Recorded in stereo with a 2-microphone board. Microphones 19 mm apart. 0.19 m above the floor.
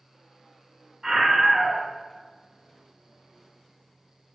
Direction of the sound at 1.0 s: 20° right (ahead or behind).